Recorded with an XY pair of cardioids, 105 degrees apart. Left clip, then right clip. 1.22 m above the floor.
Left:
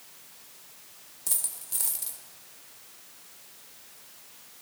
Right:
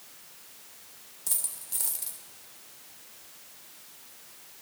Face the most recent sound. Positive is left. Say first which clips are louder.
# left 1 dB
turn(degrees=10)